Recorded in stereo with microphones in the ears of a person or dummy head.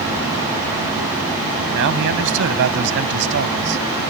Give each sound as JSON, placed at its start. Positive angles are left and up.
{"t": 1.7, "sound": "a man speaking", "side_deg": -70}